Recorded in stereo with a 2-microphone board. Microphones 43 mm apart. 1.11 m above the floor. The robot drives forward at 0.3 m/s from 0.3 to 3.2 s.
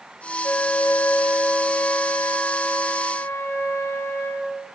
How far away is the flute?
About 2 m.